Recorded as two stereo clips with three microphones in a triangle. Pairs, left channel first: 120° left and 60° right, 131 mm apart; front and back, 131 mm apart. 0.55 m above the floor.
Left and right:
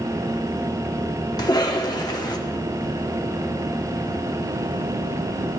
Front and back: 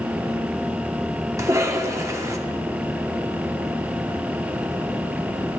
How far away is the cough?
About 1.0 m.